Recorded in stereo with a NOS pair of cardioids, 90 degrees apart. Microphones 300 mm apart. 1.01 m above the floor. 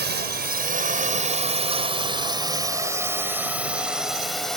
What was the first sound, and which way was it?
A drone, 35° right.